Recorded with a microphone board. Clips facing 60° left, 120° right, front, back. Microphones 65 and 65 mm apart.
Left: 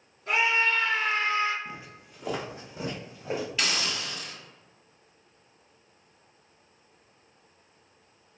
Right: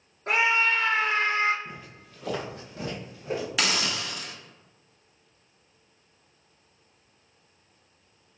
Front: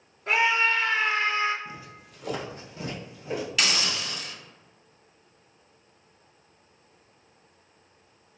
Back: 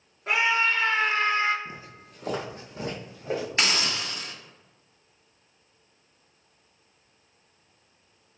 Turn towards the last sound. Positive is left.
turn(degrees=-130)